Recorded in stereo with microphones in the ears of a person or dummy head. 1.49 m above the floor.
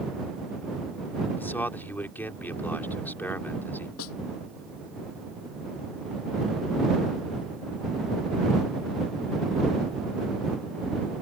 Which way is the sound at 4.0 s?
85° left.